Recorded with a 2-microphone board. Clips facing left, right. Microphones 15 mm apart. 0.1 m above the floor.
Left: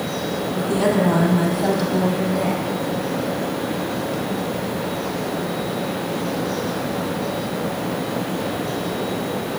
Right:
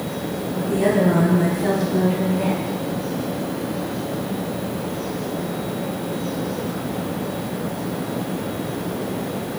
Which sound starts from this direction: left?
A woman speaking, at 0.6 s.